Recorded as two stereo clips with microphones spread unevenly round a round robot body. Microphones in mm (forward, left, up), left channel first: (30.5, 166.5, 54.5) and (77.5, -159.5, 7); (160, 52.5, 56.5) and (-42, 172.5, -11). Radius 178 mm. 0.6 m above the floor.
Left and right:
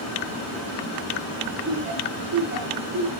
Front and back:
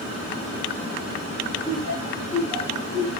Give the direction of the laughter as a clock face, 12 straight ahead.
5 o'clock.